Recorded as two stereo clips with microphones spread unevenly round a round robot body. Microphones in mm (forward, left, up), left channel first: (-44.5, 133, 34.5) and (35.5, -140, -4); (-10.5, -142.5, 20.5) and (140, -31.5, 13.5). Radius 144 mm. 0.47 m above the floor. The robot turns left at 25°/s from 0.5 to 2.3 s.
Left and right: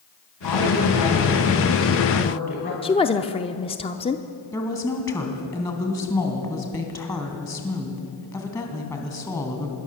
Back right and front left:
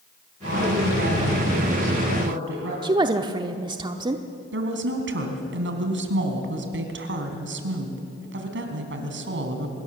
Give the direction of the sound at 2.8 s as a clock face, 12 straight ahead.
11 o'clock.